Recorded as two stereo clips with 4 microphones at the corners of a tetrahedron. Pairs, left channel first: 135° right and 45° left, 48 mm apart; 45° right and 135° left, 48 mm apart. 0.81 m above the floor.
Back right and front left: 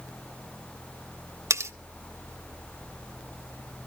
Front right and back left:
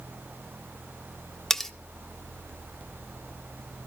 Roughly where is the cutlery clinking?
Ahead left.